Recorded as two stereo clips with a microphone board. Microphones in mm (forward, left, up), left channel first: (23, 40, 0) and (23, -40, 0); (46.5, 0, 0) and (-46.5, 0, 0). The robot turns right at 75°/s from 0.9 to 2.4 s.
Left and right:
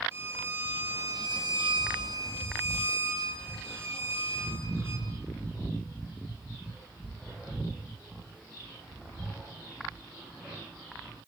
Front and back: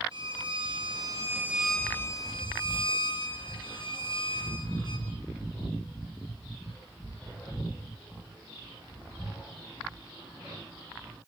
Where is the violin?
150° right, 5 m; by 5.1 s 35° right, 5 m.